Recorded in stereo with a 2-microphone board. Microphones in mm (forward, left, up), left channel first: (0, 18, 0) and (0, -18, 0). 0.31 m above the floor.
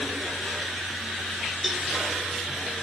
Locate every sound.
1.6 s a cowbell: 5° right (ahead or behind), 0.6 m